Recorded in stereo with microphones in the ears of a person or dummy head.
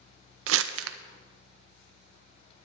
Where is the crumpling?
85° right, 0.6 m.